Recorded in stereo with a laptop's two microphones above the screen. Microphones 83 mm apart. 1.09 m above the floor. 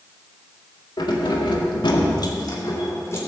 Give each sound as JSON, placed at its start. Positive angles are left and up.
{"t": 1.0, "sound": "keys jangling", "side_deg": 70, "distance_m": 2.0}